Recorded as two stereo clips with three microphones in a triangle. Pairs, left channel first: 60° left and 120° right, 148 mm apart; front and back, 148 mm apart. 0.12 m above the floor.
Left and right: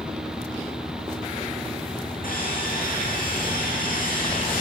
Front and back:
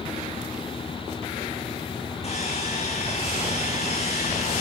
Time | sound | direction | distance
2.2 | sawing | 45° left | 9.5 m